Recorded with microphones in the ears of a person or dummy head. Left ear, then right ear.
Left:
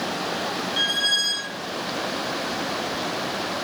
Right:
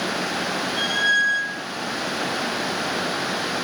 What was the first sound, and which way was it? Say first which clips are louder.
A squeak: right 2 dB; 45° left (ahead or behind).